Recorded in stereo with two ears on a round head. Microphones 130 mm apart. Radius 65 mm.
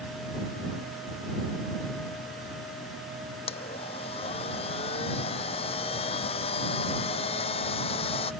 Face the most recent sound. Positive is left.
turn(degrees=40)  # may be behind; listen again after turning